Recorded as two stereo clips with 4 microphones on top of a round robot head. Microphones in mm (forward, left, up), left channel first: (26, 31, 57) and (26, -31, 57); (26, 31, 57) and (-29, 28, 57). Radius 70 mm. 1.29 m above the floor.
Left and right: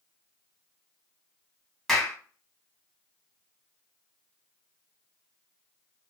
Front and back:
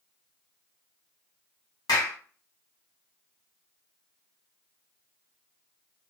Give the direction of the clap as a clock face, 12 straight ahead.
12 o'clock.